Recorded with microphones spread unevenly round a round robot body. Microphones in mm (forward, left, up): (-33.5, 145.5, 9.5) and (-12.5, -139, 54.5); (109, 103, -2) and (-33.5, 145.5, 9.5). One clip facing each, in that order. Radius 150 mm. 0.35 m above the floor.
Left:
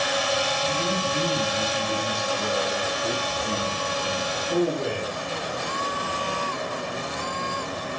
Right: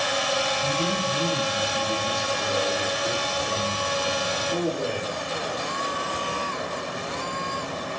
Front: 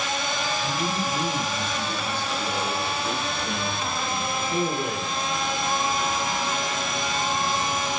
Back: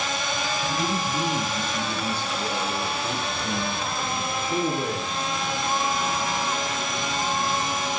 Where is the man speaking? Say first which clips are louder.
Even, back 1 dB; 175° left, 3 m; by 5.2 s 120° left, 5.5 m.